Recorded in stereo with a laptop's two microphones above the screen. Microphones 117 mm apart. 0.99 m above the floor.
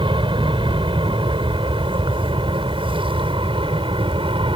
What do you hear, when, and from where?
0.0 s an aircraft: 45° right (ahead or behind); by 4.6 s 50° right (ahead or behind)